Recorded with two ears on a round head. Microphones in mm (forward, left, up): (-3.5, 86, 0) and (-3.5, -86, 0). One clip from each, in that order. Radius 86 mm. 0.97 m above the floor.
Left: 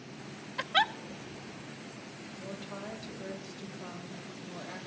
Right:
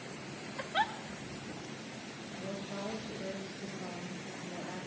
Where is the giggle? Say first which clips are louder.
Left 5 dB; 65° left (ahead or behind), 0.5 m.